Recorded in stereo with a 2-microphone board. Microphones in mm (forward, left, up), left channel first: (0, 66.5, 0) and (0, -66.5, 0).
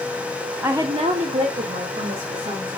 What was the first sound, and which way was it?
A woman speaking, 10° right (ahead or behind).